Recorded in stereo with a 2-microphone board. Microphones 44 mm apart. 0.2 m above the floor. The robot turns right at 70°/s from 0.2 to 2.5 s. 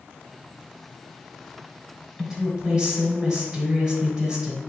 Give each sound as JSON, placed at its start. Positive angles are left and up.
{"t": 2.2, "sound": "a woman speaking", "side_deg": -5, "distance_m": 1.4}